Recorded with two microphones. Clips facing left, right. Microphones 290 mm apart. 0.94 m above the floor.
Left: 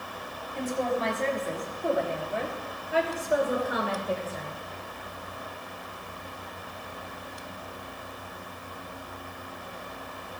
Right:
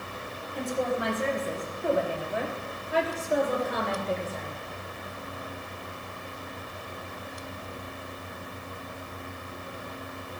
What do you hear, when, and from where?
0.6 s a woman speaking: 15° right (ahead or behind), 4.5 m; by 4.6 s 15° left (ahead or behind), 4 m